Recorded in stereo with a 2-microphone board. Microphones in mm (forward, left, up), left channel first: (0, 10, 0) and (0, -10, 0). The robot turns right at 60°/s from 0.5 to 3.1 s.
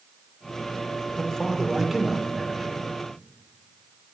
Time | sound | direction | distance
1.2 | a man speaking | 140° left | 1.9 m